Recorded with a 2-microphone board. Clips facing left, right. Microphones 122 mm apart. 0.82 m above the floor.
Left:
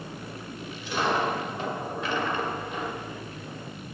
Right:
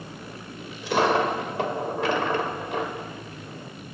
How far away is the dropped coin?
About 1.5 m.